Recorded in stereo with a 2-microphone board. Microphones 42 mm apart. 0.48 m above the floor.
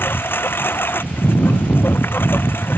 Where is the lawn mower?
65° left (ahead or behind).